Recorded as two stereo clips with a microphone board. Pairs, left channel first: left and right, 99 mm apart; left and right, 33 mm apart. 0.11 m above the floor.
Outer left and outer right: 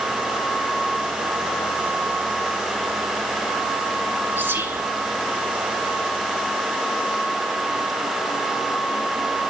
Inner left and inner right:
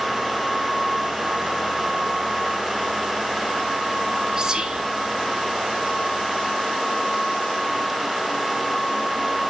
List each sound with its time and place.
4.4 s whispering: 20° right (ahead or behind), 1.8 m